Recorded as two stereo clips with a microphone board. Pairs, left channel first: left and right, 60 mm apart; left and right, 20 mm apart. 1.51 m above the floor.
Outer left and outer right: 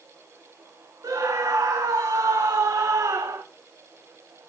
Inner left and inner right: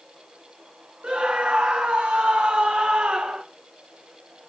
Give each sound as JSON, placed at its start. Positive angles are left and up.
{"t": 1.0, "sound": "a scream", "side_deg": -80, "distance_m": 2.5}